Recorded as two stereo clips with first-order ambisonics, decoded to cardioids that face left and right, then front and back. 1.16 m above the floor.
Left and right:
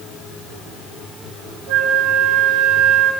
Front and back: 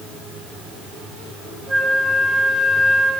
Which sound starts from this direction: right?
A flute, at 1.7 s.